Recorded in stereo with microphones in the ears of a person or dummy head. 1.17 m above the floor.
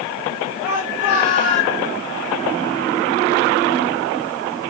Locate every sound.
0.6 s a shout: 45° left (ahead or behind), 6 m; by 1.8 s 40° left (ahead or behind), 6.5 m